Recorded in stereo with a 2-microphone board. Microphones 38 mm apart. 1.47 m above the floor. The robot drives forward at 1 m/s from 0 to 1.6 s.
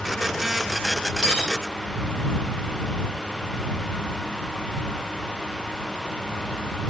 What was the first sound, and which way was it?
Cutlery clinking, 15° left (ahead or behind).